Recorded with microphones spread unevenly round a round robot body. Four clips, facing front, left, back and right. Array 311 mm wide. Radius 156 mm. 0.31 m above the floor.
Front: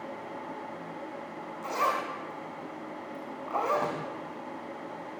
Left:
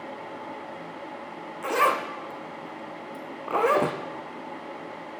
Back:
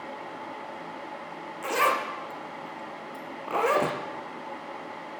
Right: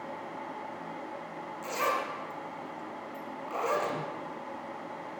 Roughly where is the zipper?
Behind left.